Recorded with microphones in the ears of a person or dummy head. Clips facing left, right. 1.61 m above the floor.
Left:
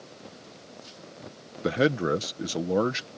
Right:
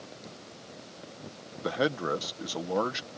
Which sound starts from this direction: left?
A man speaking, at 1.6 s.